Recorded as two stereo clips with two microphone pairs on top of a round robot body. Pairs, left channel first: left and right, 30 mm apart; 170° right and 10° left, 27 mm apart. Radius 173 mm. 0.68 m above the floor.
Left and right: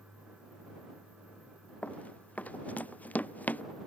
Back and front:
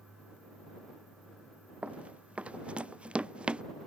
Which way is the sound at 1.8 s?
50° left.